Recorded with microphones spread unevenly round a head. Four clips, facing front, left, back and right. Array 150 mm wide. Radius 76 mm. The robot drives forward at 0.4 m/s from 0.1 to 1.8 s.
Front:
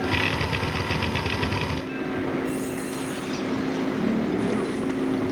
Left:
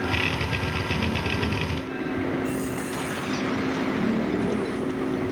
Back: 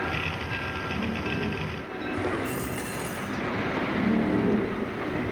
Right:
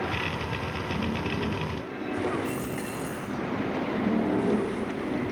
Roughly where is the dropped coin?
Behind right.